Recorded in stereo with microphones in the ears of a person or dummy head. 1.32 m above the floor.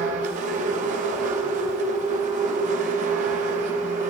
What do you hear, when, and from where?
0.0 s a machine running: 40° right (ahead or behind), 1.5 m